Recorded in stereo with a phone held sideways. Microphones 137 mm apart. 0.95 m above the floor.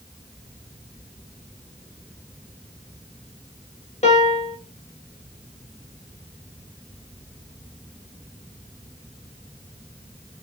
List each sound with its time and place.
4.0 s a piano: 50° left (ahead or behind), 1.6 m